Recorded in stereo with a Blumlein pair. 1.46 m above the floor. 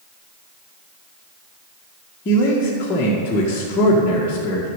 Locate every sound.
2.2 s a man speaking: 25° left, 1.9 m